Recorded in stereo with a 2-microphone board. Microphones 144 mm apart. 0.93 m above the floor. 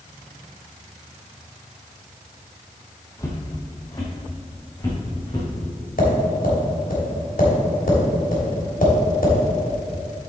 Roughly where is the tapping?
Left.